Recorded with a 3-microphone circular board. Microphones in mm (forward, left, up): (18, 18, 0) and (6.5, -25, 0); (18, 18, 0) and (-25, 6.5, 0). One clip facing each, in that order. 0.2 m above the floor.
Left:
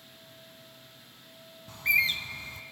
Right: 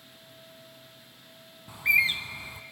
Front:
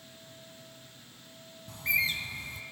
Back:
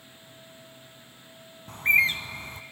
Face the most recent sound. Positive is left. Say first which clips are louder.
# right 2 dB, back 8 dB
turn(degrees=-175)